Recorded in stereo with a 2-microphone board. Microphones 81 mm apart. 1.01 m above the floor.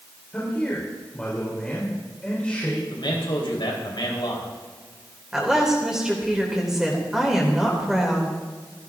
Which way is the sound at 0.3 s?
15° left (ahead or behind).